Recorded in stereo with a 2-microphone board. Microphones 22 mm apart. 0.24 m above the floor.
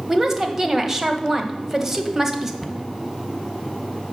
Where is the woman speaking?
20° right (ahead or behind), 1.0 m.